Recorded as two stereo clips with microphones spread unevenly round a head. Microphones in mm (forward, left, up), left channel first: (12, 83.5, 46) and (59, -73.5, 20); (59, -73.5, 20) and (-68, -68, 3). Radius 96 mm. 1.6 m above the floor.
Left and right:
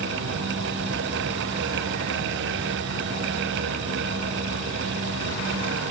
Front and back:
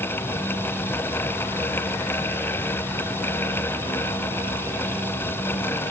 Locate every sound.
Only background noise.